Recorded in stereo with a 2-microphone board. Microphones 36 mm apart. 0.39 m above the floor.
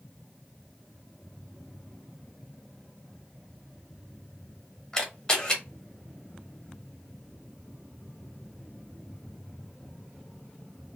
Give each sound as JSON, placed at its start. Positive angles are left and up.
{"t": 4.9, "sound": "a camera shutter", "side_deg": 15, "distance_m": 0.9}